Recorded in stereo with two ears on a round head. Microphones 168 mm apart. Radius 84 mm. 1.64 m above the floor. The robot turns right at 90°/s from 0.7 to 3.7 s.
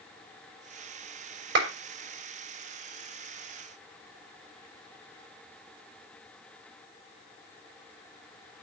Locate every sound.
1.6 s a clap: 70° right (ahead or behind), 5.5 m; by 1.7 s 80° right, 5.5 m